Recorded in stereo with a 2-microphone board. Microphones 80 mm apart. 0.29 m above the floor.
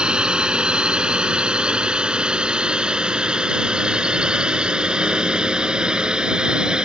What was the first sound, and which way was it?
A drone, 10° right (ahead or behind).